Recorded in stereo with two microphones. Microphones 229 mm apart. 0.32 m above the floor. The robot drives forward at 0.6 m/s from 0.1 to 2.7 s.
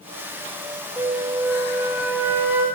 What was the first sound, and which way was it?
A flute, 15° right (ahead or behind).